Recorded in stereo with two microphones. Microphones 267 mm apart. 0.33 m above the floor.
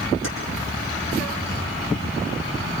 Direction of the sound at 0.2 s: 50° left (ahead or behind).